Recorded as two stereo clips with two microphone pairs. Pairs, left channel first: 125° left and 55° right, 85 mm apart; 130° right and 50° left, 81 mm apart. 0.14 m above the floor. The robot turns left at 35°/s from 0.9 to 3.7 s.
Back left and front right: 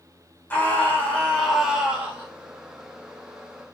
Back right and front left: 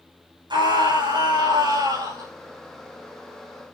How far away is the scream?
About 7.5 m.